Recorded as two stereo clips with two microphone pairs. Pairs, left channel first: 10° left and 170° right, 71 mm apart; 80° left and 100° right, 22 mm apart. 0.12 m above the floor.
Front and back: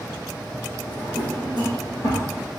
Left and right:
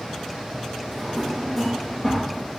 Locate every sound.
0.9 s a drawer: 5° left, 2.5 m